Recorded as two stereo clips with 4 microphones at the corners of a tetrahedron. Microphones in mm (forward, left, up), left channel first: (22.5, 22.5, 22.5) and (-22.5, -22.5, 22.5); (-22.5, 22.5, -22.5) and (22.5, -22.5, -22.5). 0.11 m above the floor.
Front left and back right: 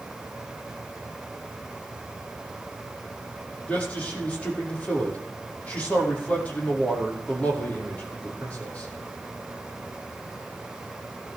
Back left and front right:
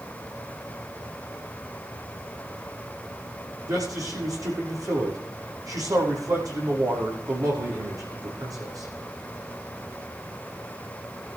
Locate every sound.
3.7 s a man speaking: 25° right, 5.5 m